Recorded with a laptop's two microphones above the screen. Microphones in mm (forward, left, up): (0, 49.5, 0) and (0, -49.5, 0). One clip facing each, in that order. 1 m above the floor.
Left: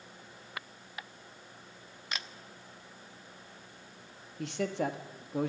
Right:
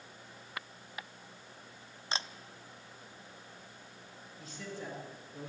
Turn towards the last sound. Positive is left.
turn(degrees=75)  # may be behind; listen again after turning